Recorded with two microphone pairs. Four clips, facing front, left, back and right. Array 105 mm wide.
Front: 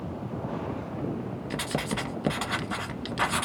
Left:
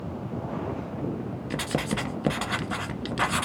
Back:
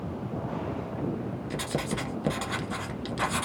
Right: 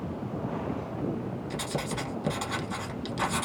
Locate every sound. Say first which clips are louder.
1.5 s writing: left 6 dB, front 1 dB; 60° left, 0.9 m